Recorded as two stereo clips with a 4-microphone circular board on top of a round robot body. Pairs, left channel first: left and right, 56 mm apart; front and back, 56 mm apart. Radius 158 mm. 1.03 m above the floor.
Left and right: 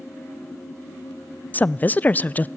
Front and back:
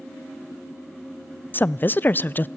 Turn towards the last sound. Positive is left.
turn(degrees=40)